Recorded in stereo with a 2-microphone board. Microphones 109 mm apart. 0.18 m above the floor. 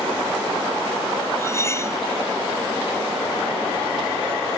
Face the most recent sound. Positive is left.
turn(degrees=25)  # may be behind; listen again after turning